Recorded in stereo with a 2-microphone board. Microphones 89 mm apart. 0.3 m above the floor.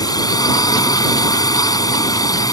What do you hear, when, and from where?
0.0 s a drone: 45° left (ahead or behind); by 2.5 s 40° left (ahead or behind)